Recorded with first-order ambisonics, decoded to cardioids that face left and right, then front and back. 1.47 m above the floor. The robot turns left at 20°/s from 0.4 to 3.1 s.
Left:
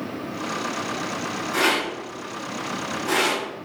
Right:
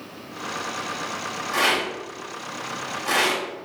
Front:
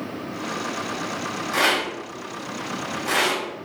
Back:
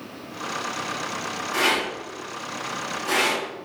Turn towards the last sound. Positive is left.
turn(degrees=-60)